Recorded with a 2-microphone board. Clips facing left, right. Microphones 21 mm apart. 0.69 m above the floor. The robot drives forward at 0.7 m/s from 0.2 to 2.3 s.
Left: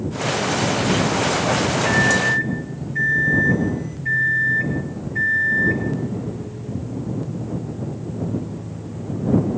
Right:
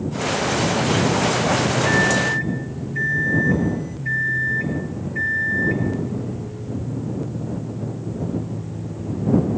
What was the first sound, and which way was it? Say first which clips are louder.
A microwave: left 2 dB; 25° left (ahead or behind).